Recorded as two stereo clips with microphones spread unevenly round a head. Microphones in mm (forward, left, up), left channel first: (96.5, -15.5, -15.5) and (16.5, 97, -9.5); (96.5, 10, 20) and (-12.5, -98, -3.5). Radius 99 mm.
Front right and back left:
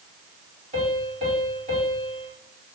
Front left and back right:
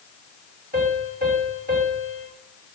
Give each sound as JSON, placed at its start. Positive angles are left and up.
{"t": 0.7, "sound": "a piano", "azimuth_deg": 170, "distance_m": 3.0}